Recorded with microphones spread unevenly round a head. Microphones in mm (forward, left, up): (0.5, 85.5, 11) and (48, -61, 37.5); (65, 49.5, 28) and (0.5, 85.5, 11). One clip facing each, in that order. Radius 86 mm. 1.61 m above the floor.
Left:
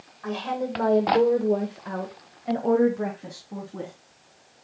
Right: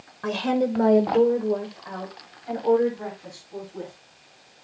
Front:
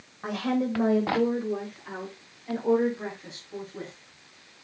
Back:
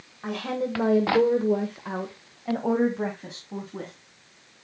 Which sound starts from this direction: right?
A woman speaking, at 0.2 s.